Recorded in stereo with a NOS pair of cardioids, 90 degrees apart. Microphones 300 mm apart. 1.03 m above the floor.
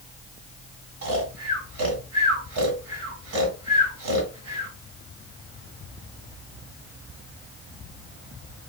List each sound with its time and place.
1.0 s snoring: 60° right, 2.5 m